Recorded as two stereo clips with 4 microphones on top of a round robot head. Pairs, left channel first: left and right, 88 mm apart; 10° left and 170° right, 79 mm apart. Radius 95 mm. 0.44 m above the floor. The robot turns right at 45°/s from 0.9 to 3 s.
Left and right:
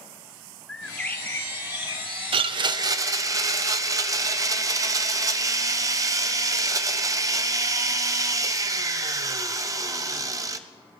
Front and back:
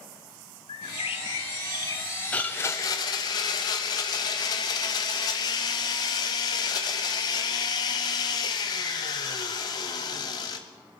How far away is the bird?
About 0.7 m.